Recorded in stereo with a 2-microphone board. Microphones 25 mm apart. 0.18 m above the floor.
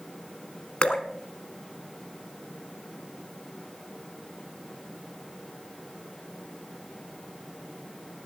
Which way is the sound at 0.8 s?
45° left (ahead or behind).